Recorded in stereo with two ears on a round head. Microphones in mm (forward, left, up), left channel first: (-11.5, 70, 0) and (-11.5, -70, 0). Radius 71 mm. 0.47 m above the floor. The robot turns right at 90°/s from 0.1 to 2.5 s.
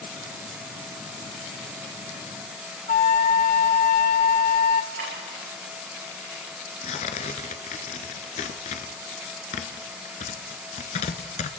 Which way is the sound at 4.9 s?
75° right (ahead or behind).